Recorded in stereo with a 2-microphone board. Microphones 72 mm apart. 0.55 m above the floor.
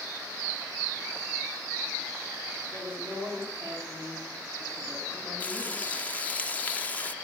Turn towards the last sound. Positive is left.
turn(degrees=20)  # may be behind; listen again after turning